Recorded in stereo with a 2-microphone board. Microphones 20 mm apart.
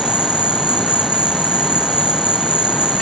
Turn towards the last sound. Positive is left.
turn(degrees=-60)  # may be behind; listen again after turning